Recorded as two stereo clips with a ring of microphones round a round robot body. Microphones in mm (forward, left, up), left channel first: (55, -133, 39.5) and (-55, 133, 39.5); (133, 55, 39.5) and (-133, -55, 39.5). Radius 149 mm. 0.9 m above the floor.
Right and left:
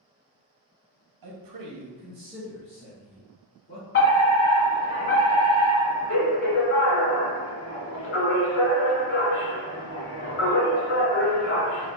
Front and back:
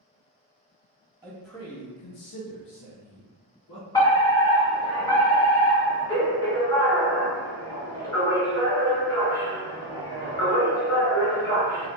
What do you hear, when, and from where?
1.2 s a man speaking: 125° left, 1.2 m; by 3.8 s 5° right, 3 m
3.9 s a fire alarm: 50° right, 1.7 m